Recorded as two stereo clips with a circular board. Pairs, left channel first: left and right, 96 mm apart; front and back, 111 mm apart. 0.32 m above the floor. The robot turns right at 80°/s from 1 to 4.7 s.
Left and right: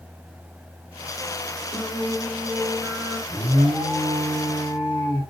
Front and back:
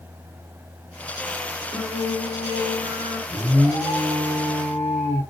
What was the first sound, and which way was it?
Singing, 105° left.